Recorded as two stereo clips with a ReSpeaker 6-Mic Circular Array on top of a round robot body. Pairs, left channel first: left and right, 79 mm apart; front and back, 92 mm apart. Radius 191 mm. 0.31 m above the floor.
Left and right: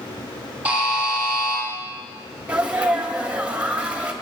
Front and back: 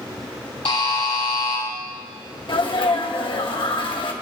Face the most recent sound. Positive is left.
turn(degrees=-15)